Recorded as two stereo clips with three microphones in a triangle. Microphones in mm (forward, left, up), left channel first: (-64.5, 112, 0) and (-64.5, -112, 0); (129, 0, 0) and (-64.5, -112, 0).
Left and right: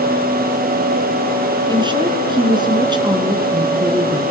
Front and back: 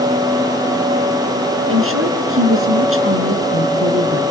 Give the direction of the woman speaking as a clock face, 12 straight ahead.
5 o'clock.